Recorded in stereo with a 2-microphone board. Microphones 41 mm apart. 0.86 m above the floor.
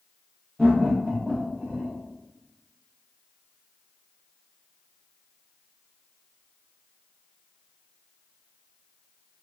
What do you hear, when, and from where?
0.6 s laughter: 10° left (ahead or behind), 0.9 m; by 1.9 s 45° right (ahead or behind), 1.4 m